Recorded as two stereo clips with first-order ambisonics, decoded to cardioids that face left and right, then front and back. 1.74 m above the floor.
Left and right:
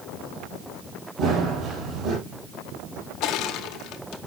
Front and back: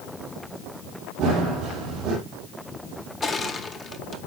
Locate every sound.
1.2 s running footsteps: 135° right, 3.5 m
3.2 s crushing: 70° left, 0.8 m